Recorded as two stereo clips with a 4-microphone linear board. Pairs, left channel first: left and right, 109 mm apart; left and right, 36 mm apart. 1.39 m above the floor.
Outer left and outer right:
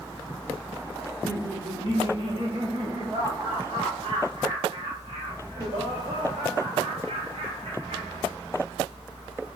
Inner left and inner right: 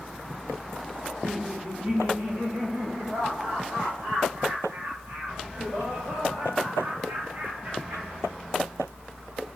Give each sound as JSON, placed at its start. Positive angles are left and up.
{"t": 1.0, "sound": "laughter", "side_deg": -35, "distance_m": 3.5}